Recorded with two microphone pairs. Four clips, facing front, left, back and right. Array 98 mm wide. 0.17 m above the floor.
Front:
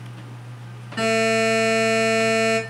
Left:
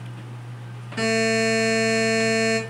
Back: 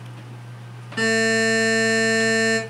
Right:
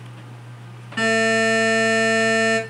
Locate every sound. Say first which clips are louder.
1.0 s a buzzer: right 2 dB, front 1 dB; 105° right, 2 m